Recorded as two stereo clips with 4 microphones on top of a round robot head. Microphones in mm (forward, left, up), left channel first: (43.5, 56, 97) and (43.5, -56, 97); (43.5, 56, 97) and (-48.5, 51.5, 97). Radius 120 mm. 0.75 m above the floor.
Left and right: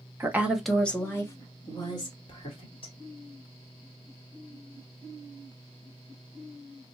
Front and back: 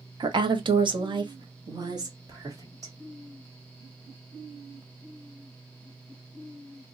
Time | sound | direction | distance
0.2 | a woman speaking | 155° right | 0.7 m